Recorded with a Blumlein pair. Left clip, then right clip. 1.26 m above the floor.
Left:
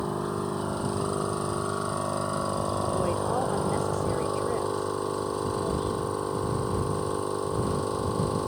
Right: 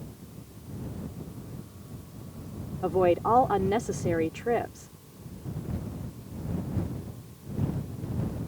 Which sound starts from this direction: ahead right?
A woman speaking, at 2.8 s.